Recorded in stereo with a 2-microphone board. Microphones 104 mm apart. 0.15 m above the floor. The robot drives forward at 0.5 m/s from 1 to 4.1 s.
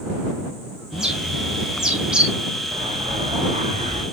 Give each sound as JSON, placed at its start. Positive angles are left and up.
{"t": 0.9, "sound": "a bird", "side_deg": -5, "distance_m": 2.5}
{"t": 2.7, "sound": "an explosion", "side_deg": -70, "distance_m": 2.5}